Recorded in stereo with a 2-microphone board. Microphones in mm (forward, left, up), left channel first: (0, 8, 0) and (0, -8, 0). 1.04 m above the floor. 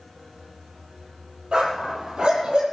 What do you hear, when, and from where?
1.5 s a dog barking: 70° right (ahead or behind), 7.5 m; by 2.6 s 75° right (ahead or behind), 7.5 m